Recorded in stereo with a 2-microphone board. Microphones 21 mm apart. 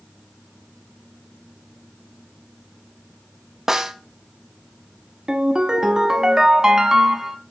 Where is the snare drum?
25° right (ahead or behind), 0.6 m.